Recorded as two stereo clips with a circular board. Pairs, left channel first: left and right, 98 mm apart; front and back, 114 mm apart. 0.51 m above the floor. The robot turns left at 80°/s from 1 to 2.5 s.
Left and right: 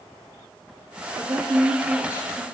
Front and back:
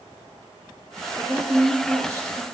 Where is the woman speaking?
70° right, 0.8 m; by 2.5 s 175° right, 0.8 m.